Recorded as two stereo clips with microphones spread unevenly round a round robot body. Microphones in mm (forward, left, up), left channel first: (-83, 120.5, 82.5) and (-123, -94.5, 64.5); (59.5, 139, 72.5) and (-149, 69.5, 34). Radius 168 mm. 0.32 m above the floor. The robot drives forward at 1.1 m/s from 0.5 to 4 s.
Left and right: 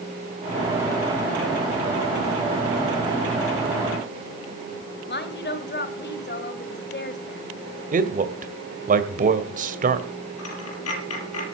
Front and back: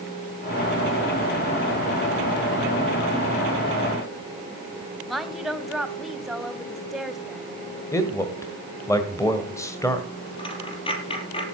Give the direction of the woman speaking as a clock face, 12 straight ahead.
8 o'clock.